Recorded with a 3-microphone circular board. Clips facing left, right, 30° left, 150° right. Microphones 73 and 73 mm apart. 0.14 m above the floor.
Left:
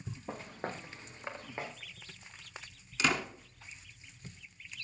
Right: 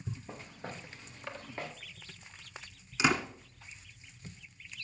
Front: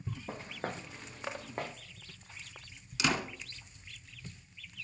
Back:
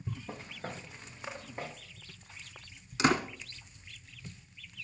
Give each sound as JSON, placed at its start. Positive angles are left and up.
{"t": 0.3, "sound": "footsteps", "azimuth_deg": 85, "distance_m": 1.2}
{"t": 3.0, "sound": "a door slam", "azimuth_deg": -155, "distance_m": 1.2}